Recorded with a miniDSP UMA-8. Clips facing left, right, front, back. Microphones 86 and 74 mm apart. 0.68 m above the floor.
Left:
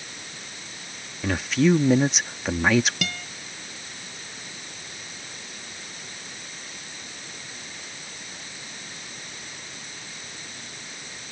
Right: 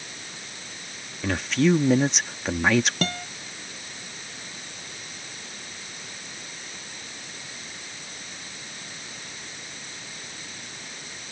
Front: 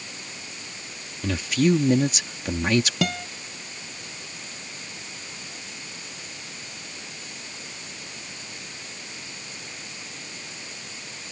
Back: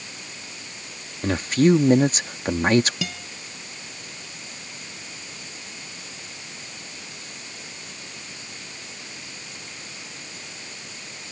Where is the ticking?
No ticking in this recording.